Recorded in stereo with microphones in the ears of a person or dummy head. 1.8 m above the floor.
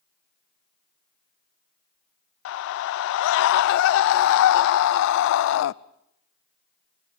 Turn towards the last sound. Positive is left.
turn(degrees=70)  # may be behind; listen again after turning